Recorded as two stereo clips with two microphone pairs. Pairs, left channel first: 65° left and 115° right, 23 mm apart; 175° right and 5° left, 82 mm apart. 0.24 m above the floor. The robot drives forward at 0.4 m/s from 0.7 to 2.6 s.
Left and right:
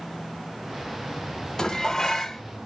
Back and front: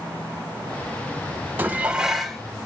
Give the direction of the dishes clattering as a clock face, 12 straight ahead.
11 o'clock.